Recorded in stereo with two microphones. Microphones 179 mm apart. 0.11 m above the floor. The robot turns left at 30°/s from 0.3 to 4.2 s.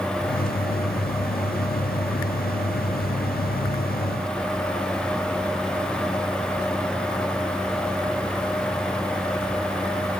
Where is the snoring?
No snoring in this recording.